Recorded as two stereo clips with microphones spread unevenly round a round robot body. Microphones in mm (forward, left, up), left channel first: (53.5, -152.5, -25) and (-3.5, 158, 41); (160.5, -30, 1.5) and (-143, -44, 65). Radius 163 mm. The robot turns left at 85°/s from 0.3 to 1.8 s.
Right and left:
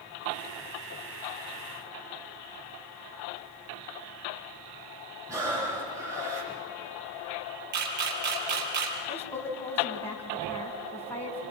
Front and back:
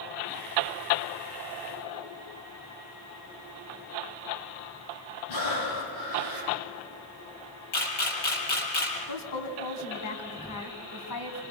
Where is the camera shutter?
40° left, 6 m.